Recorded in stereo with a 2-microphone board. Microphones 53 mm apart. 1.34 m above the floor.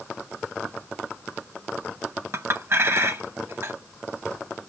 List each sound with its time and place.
2.3 s a clink: 55° right (ahead or behind), 1.1 m